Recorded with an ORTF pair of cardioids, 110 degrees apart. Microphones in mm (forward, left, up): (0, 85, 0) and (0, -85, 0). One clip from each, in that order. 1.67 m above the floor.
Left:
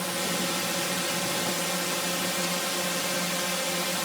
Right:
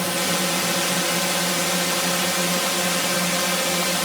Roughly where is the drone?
Ahead right.